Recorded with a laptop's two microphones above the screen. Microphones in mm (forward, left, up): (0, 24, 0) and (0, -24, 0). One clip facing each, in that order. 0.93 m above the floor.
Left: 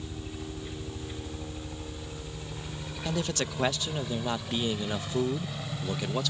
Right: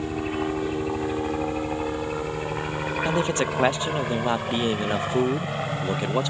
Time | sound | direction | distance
0.0 | a helicopter | 65° right (ahead or behind) | ?
3.0 | a man speaking | 30° right (ahead or behind) | ?